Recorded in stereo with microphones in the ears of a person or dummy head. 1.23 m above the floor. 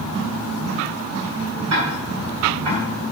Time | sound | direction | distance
1.7 | ticking | 70° right (ahead or behind) | 1.5 m